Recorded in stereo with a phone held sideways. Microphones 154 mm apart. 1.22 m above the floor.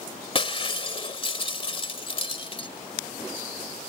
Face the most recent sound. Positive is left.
turn(degrees=35)  # may be behind; listen again after turning